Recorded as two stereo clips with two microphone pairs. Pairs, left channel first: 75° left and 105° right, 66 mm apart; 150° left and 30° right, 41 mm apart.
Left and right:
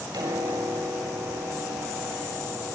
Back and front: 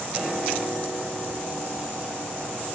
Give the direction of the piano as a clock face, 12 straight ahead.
3 o'clock.